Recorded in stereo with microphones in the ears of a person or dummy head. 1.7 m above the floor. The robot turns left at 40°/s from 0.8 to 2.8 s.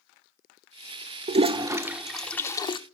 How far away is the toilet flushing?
About 0.5 m.